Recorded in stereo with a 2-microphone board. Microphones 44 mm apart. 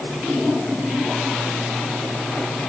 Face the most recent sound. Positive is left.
No sound to turn to.